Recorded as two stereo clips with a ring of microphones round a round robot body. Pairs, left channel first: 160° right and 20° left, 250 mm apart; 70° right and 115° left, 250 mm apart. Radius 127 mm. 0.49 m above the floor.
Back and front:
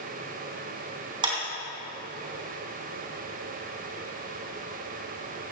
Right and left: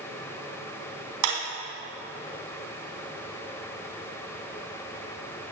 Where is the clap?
95° left, 4 m.